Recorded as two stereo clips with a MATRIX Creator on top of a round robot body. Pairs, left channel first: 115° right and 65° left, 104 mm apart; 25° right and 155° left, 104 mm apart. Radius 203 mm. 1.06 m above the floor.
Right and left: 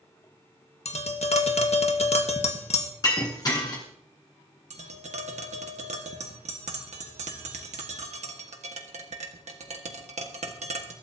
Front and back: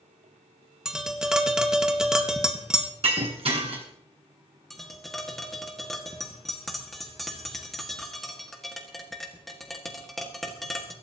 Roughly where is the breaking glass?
Behind.